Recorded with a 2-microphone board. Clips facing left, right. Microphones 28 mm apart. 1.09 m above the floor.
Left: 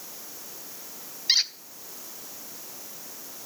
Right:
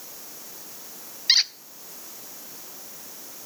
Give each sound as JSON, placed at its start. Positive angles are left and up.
{"t": 1.3, "sound": "a squeak", "side_deg": -20, "distance_m": 0.5}